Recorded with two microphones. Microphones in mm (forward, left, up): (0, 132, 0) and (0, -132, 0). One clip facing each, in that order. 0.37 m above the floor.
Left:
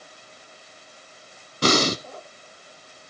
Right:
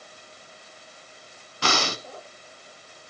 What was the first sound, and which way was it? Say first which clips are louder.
Breathing: left 8 dB; 40° left (ahead or behind).